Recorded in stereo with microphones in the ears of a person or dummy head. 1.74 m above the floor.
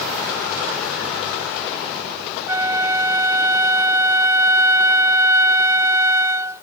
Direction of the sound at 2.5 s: 20° right (ahead or behind).